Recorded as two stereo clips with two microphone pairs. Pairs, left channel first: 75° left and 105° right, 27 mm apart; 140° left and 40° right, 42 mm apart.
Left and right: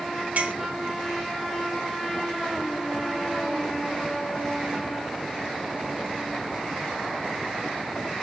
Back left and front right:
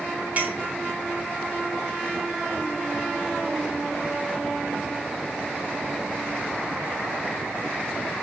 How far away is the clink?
About 3 m.